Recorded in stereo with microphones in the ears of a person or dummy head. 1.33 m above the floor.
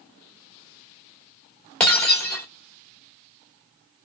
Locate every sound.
1.8 s breaking glass: 5° left (ahead or behind), 1.1 m